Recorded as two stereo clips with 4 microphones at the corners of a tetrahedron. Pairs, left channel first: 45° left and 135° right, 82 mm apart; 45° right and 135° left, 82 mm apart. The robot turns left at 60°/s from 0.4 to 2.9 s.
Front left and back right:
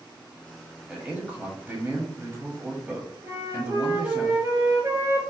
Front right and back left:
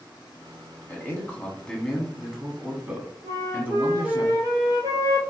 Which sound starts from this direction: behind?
A flute, at 3.2 s.